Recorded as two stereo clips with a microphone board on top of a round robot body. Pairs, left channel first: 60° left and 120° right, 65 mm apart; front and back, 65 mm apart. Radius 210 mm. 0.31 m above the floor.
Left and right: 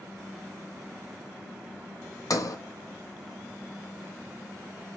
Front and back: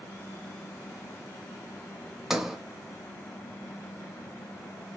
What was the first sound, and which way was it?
A sliding door, 95° left.